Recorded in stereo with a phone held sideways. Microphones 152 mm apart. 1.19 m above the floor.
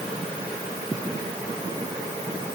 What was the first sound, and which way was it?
Only background noise.